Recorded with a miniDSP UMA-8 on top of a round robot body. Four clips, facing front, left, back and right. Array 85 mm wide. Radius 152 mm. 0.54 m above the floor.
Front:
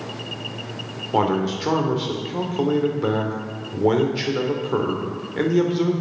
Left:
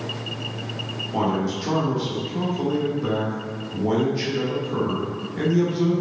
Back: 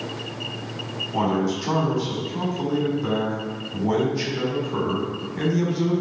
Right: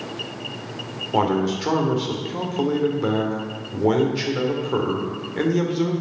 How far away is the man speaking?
About 3 m.